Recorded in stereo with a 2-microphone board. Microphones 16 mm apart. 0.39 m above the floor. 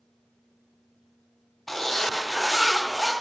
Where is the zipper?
5° left (ahead or behind), 2.0 m.